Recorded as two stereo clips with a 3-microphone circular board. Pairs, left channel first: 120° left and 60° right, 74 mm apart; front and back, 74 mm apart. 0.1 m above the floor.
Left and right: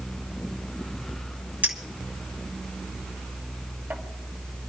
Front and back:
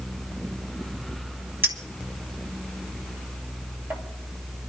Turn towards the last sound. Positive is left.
turn(degrees=-125)